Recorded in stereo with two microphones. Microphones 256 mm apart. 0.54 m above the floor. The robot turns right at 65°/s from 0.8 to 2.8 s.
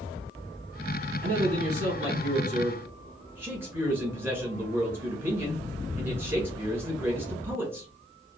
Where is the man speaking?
110° right, 1.7 m; by 7.9 s 10° right, 1.7 m.